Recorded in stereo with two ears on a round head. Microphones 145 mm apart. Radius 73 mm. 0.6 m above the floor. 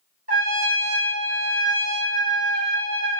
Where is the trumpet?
55° right (ahead or behind), 1.9 m.